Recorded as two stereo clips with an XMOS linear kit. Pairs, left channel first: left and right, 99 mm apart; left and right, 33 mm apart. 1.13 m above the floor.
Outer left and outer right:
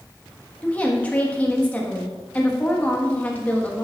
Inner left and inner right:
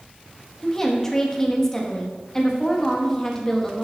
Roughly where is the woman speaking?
Centre.